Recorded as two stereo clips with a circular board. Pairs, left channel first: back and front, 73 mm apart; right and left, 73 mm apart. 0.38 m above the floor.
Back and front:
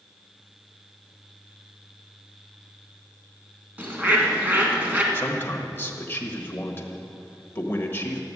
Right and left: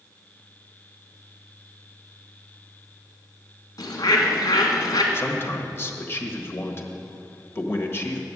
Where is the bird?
65° right, 1.9 m.